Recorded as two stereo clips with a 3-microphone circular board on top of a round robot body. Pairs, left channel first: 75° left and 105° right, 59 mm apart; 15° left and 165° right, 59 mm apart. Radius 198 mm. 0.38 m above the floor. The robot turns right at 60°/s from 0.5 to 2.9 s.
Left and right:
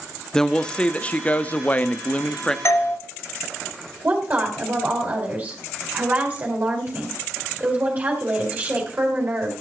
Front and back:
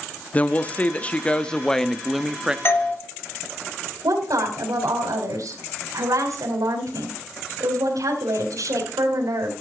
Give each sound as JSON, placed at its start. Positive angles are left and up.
{"t": 0.3, "sound": "a woman speaking", "azimuth_deg": 10, "distance_m": 1.1}
{"t": 2.6, "sound": "a doorbell", "azimuth_deg": 50, "distance_m": 3.0}
{"t": 4.0, "sound": "a woman speaking", "azimuth_deg": -165, "distance_m": 4.0}